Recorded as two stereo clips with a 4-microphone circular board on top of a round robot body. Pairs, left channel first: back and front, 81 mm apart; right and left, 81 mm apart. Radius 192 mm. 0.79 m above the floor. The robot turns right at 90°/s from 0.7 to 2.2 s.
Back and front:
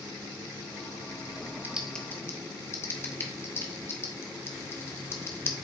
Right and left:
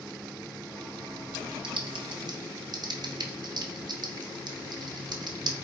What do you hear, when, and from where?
1.6 s typing on a keyboard: 70° left, 0.9 m; by 5.5 s 120° left, 0.9 m